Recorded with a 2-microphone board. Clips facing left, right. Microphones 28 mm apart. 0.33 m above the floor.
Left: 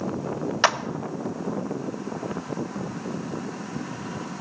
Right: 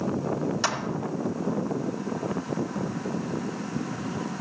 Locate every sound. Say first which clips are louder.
0.6 s a clap: left 9 dB; 40° left (ahead or behind), 0.9 m